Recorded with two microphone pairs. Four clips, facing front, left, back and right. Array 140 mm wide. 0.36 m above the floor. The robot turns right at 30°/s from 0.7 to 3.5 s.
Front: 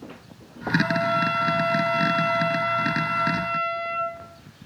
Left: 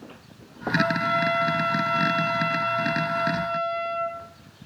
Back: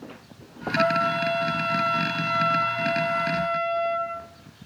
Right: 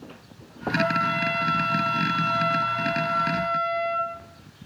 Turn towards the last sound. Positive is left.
turn(degrees=-100)